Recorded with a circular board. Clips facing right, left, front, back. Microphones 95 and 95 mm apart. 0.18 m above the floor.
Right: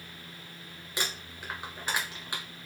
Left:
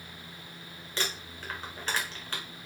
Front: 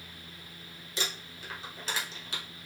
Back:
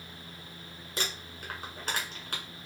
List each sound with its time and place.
1.0 s crumpling: 165° right, 1.3 m